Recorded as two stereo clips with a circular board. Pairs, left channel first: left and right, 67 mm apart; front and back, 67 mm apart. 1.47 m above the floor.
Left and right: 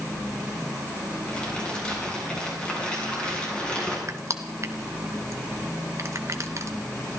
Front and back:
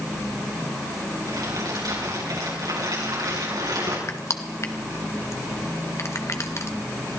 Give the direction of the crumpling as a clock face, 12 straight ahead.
6 o'clock.